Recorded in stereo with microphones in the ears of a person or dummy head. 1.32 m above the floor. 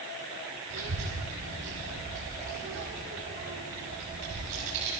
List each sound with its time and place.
0.7 s a child speaking: 80° right, 3 m